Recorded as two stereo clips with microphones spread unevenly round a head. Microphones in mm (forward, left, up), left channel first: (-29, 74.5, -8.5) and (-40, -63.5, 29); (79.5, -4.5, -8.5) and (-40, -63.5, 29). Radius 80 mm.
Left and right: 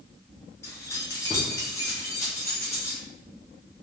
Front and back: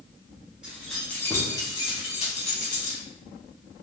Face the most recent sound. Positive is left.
turn(degrees=0)